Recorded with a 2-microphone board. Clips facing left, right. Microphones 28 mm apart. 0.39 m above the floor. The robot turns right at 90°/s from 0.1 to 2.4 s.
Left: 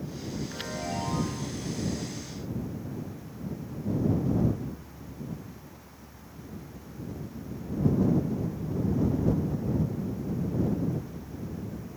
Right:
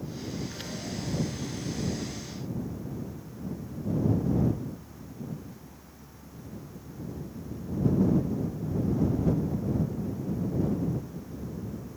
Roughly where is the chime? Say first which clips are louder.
Left 3 dB; ahead.